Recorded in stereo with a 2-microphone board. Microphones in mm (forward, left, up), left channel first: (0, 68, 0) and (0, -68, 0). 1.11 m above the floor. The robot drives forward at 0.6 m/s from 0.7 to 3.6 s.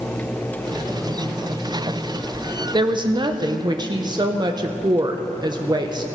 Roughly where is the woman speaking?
Right.